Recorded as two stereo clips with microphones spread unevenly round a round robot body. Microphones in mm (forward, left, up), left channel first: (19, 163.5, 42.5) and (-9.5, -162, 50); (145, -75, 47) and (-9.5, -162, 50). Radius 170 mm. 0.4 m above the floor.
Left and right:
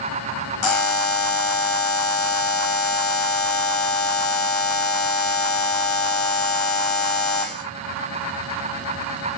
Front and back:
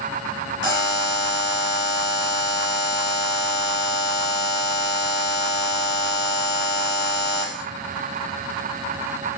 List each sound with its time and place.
0.6 s a buzzer: 50° left, 0.7 m